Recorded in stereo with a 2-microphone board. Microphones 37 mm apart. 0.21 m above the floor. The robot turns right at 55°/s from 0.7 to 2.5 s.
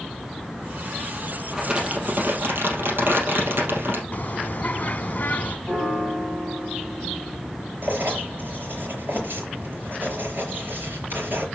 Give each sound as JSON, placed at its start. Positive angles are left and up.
{"t": 1.5, "sound": "crumpling", "azimuth_deg": -165, "distance_m": 3.0}
{"t": 4.1, "sound": "a bird", "side_deg": 50, "distance_m": 0.6}
{"t": 5.7, "sound": "a piano", "side_deg": -20, "distance_m": 5.5}
{"t": 7.8, "sound": "writing", "side_deg": -65, "distance_m": 4.5}